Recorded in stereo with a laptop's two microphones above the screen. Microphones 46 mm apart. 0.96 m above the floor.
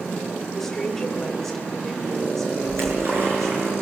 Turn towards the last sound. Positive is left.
turn(degrees=-50)  # may be behind; listen again after turning